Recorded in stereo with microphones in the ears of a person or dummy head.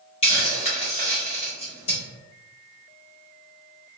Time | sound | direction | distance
0.2 | a hiss | 30° left (ahead or behind) | 1.2 m